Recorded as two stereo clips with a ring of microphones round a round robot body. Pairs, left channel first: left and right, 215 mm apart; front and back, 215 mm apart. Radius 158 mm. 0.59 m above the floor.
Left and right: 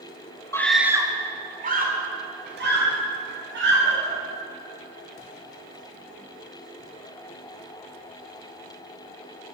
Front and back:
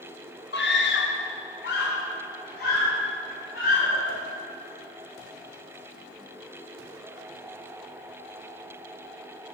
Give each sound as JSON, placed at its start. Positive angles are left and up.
{"t": 0.5, "sound": "a scream", "azimuth_deg": 15, "distance_m": 1.2}